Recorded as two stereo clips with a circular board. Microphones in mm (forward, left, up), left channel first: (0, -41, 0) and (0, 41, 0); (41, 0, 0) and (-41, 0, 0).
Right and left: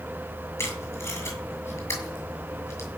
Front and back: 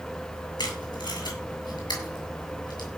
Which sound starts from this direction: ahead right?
Tape being pulled, at 0.6 s.